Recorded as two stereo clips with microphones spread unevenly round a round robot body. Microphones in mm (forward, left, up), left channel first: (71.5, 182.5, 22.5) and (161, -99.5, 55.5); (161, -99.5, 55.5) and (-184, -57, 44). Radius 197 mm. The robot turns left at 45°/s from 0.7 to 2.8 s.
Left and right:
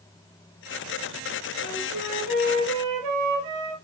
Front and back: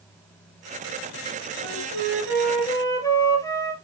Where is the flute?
35° right, 3.5 m; by 3.7 s 85° right, 3.5 m.